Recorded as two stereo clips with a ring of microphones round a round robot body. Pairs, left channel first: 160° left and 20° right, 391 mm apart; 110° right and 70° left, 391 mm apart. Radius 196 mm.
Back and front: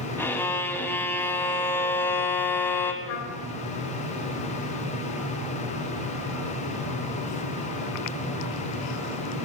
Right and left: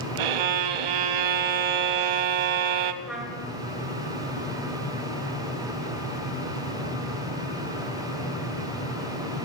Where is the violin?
75° left, 1.2 m.